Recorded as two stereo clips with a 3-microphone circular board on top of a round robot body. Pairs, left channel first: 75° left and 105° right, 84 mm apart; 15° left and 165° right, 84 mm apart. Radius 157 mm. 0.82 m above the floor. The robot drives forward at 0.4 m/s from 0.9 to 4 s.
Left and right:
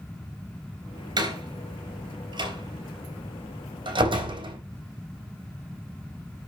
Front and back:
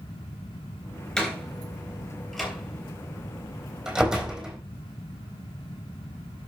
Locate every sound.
1.2 s a door slam: 70° right, 4 m; by 4.6 s 85° right, 3.5 m